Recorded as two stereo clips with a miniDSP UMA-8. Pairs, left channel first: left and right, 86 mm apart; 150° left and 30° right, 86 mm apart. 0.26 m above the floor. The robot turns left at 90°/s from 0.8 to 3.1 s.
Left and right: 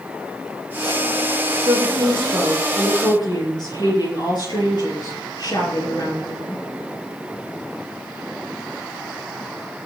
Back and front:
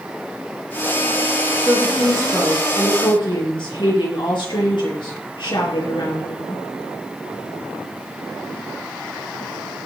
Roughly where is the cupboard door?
I don't hear a cupboard door.